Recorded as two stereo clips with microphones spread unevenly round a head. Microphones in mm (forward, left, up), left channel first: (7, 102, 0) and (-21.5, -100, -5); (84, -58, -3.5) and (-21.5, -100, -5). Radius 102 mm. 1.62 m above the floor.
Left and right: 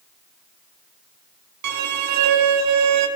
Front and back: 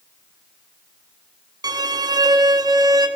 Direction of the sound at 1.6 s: 100° right.